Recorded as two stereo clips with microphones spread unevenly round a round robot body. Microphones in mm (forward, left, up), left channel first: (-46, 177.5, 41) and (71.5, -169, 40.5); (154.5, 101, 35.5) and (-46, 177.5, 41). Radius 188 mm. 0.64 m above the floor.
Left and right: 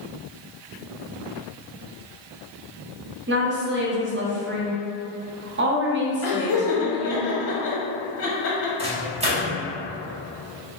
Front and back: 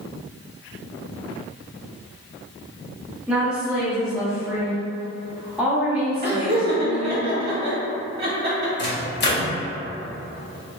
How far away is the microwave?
About 0.8 m.